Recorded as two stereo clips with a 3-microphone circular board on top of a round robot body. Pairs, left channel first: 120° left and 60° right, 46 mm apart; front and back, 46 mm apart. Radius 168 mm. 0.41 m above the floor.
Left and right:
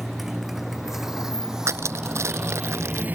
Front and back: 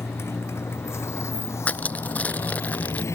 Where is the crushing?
60° right.